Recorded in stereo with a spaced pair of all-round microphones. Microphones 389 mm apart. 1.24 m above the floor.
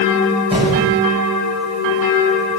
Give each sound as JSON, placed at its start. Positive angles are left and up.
{"t": 0.5, "sound": "an explosion", "side_deg": -15, "distance_m": 6.5}